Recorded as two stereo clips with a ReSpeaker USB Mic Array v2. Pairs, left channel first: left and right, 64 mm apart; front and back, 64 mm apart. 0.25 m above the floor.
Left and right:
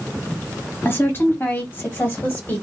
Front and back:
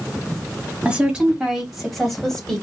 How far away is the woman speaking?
About 1.8 m.